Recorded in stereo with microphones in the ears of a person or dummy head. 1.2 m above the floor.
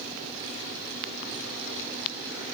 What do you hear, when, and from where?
Only background noise.